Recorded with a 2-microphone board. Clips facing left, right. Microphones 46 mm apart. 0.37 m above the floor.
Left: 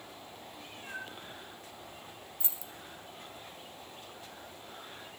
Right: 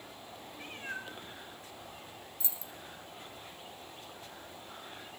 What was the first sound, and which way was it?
A cat meowing, 45° right (ahead or behind).